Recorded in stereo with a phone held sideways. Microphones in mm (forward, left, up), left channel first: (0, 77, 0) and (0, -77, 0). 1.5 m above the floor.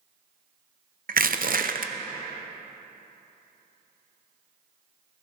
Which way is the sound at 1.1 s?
60° right (ahead or behind).